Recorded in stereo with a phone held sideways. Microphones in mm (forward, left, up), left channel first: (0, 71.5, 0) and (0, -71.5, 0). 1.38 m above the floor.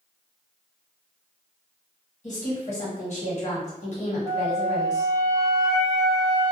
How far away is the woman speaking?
About 1.5 m.